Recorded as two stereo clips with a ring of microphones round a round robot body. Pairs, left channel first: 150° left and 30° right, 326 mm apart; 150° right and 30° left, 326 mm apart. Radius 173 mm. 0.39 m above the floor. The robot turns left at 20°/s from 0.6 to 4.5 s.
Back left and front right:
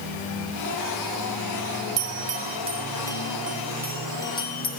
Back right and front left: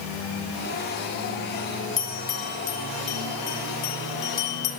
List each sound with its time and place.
2.0 s a bell: 85° right, 2 m; by 4.7 s 135° right, 2 m